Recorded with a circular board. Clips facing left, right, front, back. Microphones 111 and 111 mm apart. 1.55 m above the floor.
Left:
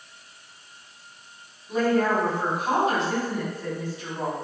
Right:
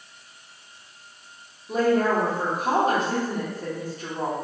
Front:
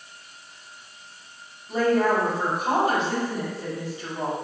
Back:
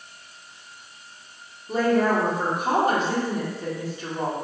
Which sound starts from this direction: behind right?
A woman speaking, at 1.7 s.